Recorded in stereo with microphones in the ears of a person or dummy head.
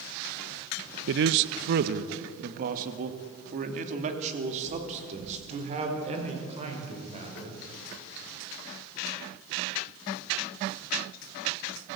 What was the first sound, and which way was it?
A man speaking, 65° right (ahead or behind).